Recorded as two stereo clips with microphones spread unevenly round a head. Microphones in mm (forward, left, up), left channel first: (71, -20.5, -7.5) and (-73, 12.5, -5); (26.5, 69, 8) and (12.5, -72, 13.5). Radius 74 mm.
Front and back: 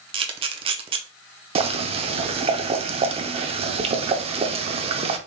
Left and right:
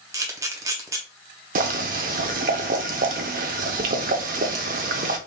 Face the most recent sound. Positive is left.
turn(degrees=-135)